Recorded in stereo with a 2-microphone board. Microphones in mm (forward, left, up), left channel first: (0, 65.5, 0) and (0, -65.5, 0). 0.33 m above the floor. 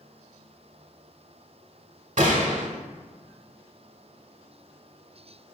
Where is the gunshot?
65° right (ahead or behind), 0.8 m.